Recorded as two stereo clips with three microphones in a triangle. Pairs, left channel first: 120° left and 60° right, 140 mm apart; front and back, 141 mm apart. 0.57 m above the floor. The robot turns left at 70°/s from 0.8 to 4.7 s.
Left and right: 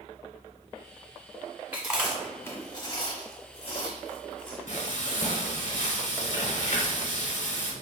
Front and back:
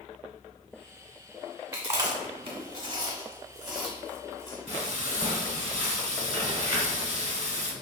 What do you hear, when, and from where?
1.7 s chewing: 125° right, 1.2 m; by 4.6 s 35° left, 1.2 m
4.7 s frying: 145° left, 0.9 m